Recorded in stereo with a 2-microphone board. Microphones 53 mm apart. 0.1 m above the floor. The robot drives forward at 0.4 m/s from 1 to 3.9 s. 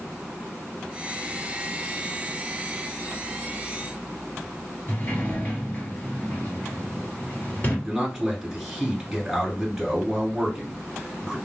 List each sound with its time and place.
4.9 s a sliding door: 30° left (ahead or behind), 2.0 m
7.8 s a man speaking: 5° right (ahead or behind), 1.5 m